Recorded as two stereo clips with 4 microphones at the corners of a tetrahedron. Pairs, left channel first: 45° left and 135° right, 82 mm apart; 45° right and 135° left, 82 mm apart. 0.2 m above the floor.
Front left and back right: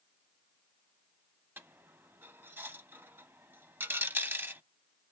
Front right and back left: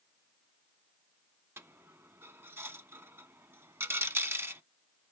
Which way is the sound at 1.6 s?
175° left.